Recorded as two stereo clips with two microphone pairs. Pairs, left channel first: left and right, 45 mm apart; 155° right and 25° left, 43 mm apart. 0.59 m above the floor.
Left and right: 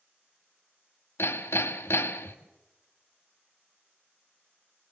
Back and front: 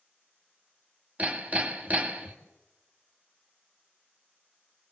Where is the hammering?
75° left, 1.4 m.